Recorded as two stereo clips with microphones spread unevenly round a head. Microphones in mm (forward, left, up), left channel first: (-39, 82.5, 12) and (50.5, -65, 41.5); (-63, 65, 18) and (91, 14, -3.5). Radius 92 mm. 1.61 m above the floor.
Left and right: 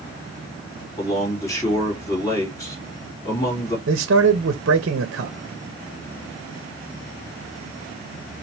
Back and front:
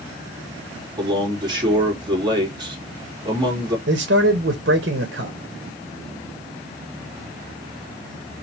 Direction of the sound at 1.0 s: 45° left.